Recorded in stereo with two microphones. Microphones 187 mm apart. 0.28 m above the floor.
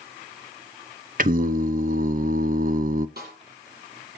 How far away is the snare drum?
About 7 m.